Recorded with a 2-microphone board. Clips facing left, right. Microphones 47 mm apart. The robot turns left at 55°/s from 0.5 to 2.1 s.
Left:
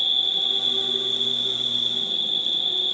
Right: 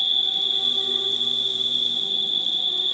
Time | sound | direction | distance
0.0 | an insect | 5° right | 0.9 m